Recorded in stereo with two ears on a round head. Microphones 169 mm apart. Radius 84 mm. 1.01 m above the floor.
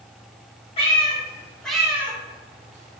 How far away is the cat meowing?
About 1.0 m.